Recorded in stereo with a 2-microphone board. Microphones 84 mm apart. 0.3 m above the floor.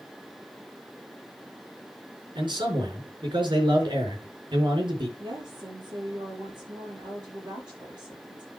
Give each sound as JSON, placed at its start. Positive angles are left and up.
{"t": 2.4, "sound": "a man speaking", "side_deg": -65, "distance_m": 4.5}
{"t": 5.2, "sound": "a woman speaking", "side_deg": -65, "distance_m": 7.0}